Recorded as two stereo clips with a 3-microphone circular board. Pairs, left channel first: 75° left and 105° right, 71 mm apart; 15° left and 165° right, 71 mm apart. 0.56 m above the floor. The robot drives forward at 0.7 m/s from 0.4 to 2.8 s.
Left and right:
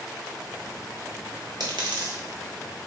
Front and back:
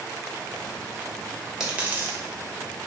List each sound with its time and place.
1.6 s a dropped coin: 80° right, 0.9 m; by 2.2 s 110° right, 0.9 m